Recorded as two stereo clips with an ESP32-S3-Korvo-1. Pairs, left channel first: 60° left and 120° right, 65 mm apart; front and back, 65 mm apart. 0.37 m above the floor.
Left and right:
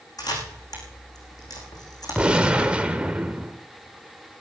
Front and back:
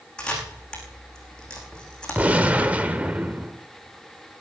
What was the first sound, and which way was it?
A camera shutter, 80° left.